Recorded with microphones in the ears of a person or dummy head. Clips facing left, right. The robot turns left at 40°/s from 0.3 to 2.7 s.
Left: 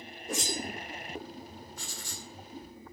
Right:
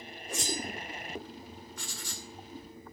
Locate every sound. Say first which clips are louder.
0.3 s a whoosh: left 2 dB; 55° left (ahead or behind), 2.5 m; by 0.6 s 70° left (ahead or behind), 2.5 m
1.8 s writing: even; 55° right (ahead or behind), 2.5 m; by 2.3 s 70° right (ahead or behind), 2.5 m